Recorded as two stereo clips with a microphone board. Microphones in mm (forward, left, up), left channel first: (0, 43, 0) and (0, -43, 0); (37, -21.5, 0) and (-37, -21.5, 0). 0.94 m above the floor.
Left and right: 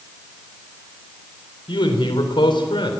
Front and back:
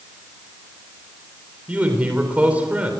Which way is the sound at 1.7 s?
110° left.